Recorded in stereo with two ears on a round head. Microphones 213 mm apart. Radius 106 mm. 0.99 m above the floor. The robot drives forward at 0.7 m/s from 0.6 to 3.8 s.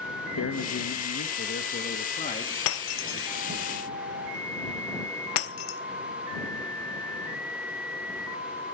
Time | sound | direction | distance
0.4 | a man speaking | 60° left (ahead or behind) | 1.1 m
2.7 | breaking glass | 65° left (ahead or behind) | 1.0 m